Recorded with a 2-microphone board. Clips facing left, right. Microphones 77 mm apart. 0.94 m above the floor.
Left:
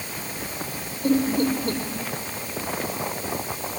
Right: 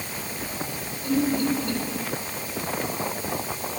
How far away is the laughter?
About 3.5 m.